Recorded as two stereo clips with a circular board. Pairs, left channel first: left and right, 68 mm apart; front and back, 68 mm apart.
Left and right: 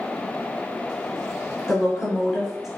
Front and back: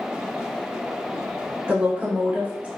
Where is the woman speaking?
160° right, 1.0 m.